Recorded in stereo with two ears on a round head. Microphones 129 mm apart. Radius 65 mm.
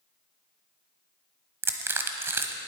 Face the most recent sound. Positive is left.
turn(degrees=-15)  # may be behind; listen again after turning